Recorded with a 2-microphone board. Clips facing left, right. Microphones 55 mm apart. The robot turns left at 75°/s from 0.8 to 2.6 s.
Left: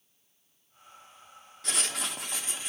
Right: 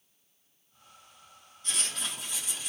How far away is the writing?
About 0.6 m.